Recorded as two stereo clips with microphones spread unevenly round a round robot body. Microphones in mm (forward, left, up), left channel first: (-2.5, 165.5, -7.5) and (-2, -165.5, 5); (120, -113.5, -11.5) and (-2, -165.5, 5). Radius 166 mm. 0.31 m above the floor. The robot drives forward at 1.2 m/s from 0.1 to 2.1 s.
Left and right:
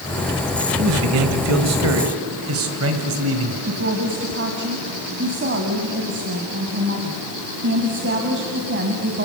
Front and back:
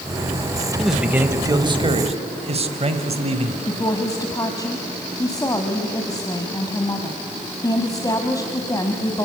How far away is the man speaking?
About 1.8 m.